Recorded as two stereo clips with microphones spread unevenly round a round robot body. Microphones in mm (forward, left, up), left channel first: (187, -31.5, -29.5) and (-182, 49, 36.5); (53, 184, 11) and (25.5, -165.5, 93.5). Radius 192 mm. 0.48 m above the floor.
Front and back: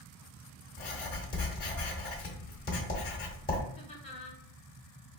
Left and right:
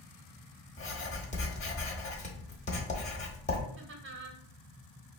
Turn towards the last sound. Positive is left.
turn(degrees=-45)